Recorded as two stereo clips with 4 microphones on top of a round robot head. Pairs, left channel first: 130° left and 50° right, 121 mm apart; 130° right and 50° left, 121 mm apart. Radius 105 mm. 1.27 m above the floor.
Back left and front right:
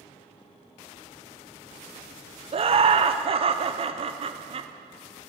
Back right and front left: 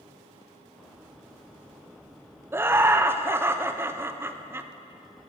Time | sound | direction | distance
2.5 | laughter | 20° right | 0.6 m